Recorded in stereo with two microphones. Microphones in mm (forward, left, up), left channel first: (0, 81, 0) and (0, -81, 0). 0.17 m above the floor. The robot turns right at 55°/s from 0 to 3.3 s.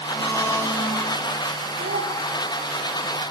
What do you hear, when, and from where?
0.1 s a blender: 20° left (ahead or behind), 1.6 m; by 1.2 s 5° left (ahead or behind), 1.6 m
1.8 s a child speaking: 80° right, 4.5 m; by 2.1 s 60° right (ahead or behind), 4.5 m